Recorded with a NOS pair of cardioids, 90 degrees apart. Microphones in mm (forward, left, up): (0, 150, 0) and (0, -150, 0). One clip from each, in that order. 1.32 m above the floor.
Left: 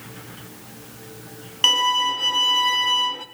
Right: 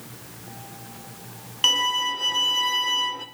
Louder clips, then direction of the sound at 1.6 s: Left 3 dB; 15° left.